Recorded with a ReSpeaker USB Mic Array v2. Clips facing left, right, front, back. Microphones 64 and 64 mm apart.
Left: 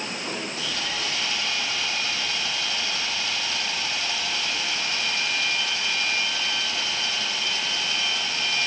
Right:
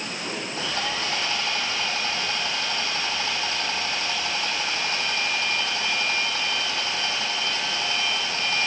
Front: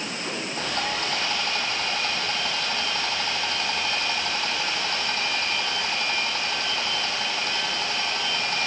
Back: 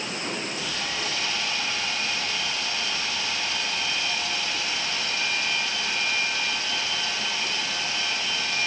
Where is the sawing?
40° right, 2 m.